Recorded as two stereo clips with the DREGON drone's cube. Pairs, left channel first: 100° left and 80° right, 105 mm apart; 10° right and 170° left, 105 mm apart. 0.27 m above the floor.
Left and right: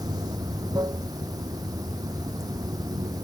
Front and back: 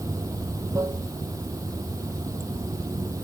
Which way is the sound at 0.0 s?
130° right.